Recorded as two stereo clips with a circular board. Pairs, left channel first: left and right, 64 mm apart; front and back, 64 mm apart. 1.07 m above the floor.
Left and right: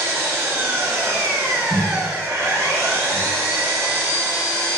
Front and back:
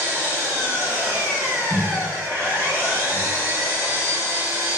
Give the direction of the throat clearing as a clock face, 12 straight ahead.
I don't hear throat clearing.